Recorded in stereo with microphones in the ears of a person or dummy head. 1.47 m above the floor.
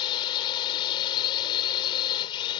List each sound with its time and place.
0.0 s a drone: 25° left (ahead or behind)